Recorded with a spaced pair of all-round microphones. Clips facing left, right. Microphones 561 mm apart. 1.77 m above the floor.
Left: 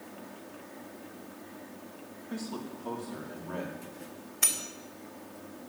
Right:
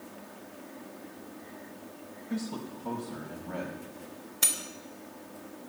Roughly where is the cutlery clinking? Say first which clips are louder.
Right 1 dB; right.